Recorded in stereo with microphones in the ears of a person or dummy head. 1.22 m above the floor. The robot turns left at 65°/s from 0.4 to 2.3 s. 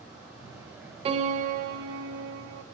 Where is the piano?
45° right, 0.6 m; by 2.6 s 125° right, 0.6 m.